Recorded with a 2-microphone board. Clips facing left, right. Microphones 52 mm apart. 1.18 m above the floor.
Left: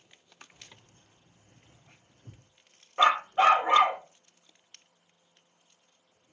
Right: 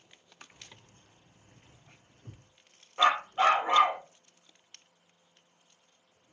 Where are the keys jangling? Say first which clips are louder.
Right 1 dB; 50° right (ahead or behind), 1.8 m.